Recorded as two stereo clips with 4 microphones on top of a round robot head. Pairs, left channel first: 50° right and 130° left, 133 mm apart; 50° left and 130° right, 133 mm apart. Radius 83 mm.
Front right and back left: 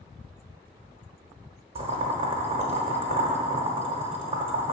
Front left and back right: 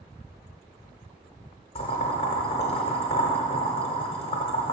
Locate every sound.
1.8 s boiling: 90° left, 1.0 m